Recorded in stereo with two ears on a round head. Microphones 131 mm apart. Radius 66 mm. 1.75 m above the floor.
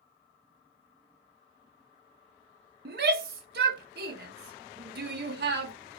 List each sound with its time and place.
2.9 s a shout: 70° right (ahead or behind), 0.8 m